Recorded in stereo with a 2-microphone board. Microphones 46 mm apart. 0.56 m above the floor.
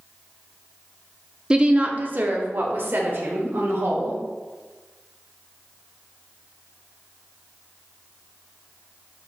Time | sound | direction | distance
1.5 | a woman speaking | 20° right (ahead or behind) | 0.9 m